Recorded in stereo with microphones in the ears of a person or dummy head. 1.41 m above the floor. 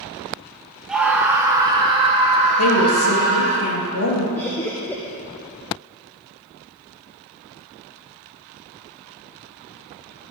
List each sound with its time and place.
0.9 s a scream: 5° right (ahead or behind), 1.0 m; by 3.6 s 45° right (ahead or behind), 2 m
2.6 s a woman speaking: 80° left, 1.8 m
4.4 s laughter: 10° left (ahead or behind), 0.7 m